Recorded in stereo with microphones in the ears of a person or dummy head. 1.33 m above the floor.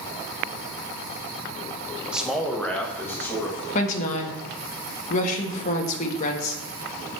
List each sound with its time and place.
2.1 s a man speaking: 10° right (ahead or behind), 0.6 m; by 3.6 s 15° left (ahead or behind), 1.8 m
3.7 s a woman speaking: 45° left (ahead or behind), 1.2 m